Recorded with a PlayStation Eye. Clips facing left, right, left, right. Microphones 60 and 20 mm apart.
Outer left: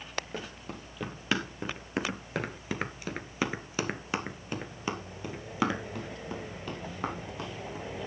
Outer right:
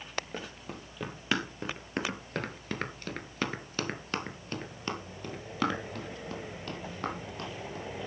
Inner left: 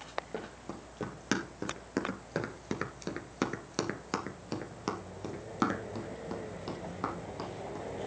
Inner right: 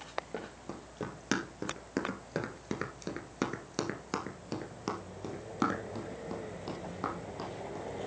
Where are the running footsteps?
Centre (ahead or behind), 2.5 m; by 7.8 s 10° left (ahead or behind), 4 m.